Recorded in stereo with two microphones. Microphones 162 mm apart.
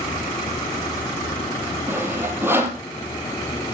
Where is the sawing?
15° right (ahead or behind), 2.5 m.